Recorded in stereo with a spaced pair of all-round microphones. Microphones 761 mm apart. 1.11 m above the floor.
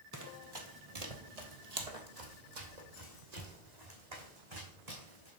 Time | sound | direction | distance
0.1 | running footsteps | 25° right (ahead or behind) | 1.6 m